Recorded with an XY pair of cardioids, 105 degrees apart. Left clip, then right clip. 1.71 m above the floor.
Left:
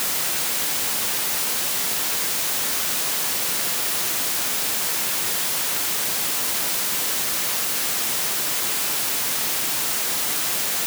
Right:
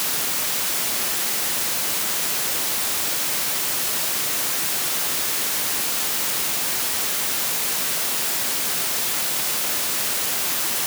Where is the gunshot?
No gunshot in this recording.